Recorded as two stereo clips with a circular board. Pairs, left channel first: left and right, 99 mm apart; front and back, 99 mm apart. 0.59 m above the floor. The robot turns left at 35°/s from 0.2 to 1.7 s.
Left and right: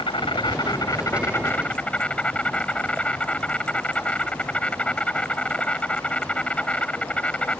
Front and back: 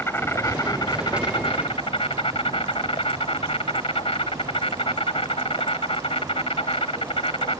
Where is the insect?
65° left; by 7.6 s 15° left.